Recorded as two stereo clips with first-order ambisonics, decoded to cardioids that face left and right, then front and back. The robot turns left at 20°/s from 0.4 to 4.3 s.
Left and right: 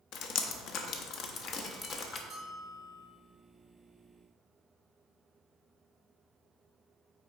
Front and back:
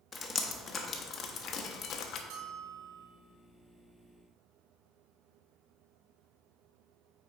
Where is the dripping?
70° left, 0.7 m; by 2.2 s 35° left, 0.7 m.